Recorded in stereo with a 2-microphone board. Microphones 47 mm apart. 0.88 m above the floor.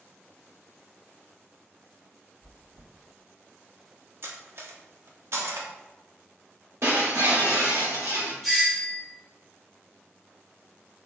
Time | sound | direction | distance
2.4 | chewing | 70° right (ahead or behind) | 1.9 m
4.2 | cutlery clinking | 60° right (ahead or behind) | 0.6 m
6.8 | breaking glass | 85° right | 1.3 m
8.4 | a doorbell | centre (ahead or behind) | 1.4 m